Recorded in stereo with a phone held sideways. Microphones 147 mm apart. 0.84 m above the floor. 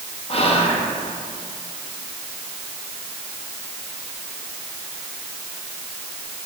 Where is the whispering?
40° left (ahead or behind), 1.0 m.